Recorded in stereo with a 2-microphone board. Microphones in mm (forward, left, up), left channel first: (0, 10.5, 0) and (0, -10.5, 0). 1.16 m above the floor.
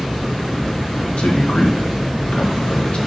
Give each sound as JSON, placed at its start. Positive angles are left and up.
{"t": 1.2, "sound": "a man speaking", "side_deg": 75, "distance_m": 1.8}